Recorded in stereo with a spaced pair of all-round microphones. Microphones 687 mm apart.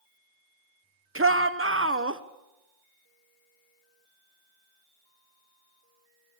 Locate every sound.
1.1 s a shout: 20° right (ahead or behind), 1.1 m